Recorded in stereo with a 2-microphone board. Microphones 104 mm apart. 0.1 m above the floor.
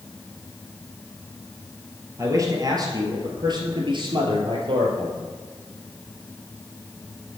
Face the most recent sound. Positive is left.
turn(degrees=-60)  # may be behind; listen again after turning